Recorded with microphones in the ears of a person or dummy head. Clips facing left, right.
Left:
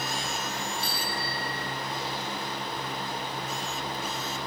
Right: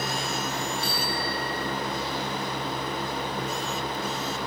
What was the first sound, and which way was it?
A bicycle bell, 75° left (ahead or behind).